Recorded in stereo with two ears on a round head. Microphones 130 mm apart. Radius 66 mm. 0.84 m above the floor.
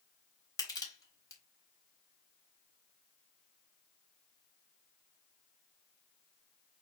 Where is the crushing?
25° left (ahead or behind), 4.5 m.